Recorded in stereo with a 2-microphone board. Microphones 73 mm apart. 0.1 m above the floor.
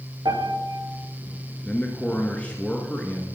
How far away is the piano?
About 4 m.